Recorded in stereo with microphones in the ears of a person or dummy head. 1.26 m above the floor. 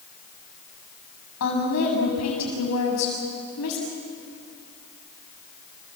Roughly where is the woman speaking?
Left.